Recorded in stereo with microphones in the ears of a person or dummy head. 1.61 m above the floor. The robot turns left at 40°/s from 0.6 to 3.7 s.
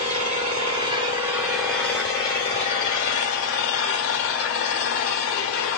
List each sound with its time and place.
0.0 s an engine running: 145° right, 3 m; by 5.8 s 90° left, 3 m